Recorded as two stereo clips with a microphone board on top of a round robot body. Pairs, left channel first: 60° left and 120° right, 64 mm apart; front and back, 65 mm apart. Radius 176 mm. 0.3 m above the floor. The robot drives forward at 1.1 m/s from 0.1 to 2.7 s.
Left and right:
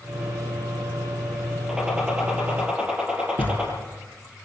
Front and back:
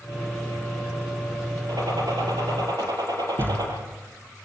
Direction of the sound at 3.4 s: 120° left.